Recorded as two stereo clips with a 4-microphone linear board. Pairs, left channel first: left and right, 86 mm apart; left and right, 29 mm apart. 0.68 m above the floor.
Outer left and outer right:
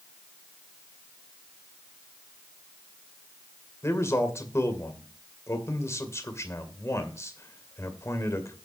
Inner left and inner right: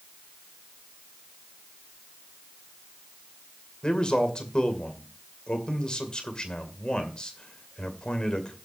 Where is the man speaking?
35° left (ahead or behind), 2 m.